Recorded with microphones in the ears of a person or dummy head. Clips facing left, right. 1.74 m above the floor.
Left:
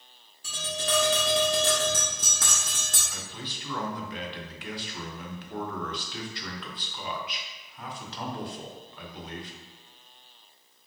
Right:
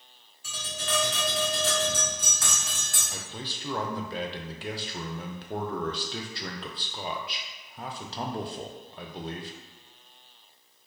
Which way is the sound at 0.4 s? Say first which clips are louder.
Left 4 dB; 25° left (ahead or behind).